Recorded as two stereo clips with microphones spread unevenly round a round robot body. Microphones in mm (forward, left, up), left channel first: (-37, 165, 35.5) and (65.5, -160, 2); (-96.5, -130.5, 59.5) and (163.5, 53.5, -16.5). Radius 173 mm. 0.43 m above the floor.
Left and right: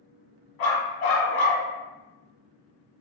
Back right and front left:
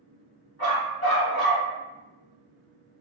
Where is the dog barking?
115° left, 1.2 m.